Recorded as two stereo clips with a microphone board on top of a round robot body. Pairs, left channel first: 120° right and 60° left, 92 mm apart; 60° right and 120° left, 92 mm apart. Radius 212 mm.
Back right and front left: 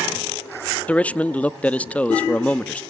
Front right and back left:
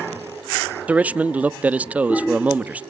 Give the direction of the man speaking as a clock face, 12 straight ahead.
6 o'clock.